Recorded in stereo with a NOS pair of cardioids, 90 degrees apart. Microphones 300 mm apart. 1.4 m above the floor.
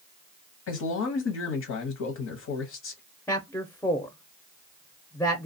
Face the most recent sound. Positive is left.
turn(degrees=5)